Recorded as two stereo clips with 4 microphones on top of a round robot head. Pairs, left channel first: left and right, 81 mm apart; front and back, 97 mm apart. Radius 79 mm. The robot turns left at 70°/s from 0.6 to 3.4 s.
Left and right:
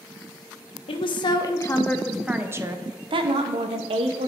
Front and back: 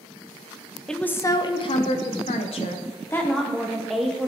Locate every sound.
0.9 s a woman speaking: 85° left, 0.9 m; by 4.3 s 90° right, 0.9 m